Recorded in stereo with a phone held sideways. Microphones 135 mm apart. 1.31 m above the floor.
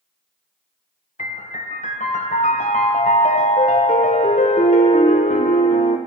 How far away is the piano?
About 0.6 m.